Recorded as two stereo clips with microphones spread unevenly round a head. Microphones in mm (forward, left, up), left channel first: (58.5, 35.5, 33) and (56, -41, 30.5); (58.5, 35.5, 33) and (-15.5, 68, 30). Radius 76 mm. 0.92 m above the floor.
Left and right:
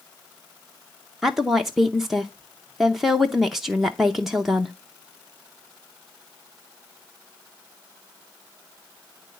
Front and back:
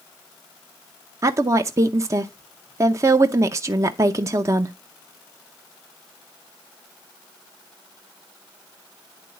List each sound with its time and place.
1.2 s a woman speaking: 175° right, 0.6 m